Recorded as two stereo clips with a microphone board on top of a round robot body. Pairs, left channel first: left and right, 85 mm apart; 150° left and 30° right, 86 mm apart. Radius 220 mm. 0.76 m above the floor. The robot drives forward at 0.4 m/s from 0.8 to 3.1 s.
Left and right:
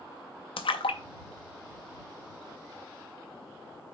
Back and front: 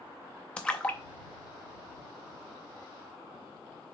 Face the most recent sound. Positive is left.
turn(degrees=145)